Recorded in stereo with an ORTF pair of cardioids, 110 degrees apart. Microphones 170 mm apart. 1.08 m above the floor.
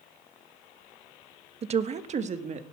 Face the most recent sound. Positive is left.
turn(degrees=-45)